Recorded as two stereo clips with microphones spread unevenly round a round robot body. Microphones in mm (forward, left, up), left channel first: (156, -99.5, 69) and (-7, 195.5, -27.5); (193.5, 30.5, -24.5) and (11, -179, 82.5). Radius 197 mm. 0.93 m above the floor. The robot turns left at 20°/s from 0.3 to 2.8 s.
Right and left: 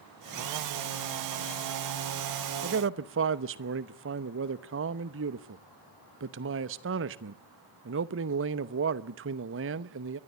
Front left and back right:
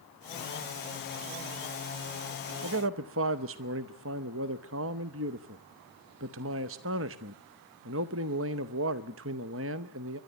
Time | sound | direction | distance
2.6 | a man speaking | 170° left | 0.7 m